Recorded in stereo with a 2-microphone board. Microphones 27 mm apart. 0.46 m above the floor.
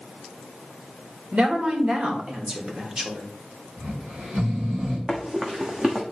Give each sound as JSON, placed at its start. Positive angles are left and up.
{"t": 1.3, "sound": "a woman speaking", "side_deg": -50, "distance_m": 1.8}
{"t": 3.8, "sound": "snoring", "side_deg": -60, "distance_m": 3.5}
{"t": 5.1, "sound": "running footsteps", "side_deg": -30, "distance_m": 1.2}